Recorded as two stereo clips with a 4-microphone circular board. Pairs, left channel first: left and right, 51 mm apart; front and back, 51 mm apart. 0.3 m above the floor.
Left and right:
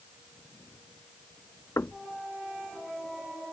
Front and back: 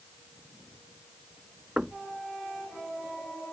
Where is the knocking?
105° left.